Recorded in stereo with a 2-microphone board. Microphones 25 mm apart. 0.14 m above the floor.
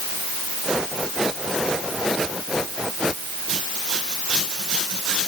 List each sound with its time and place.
Only background noise.